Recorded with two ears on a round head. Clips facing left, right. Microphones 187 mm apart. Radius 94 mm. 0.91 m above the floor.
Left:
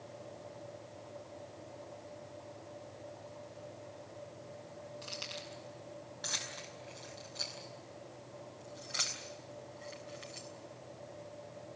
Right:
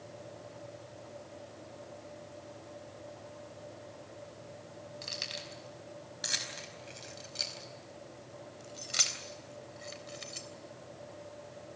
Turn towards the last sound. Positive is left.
turn(degrees=-60)  # may be behind; listen again after turning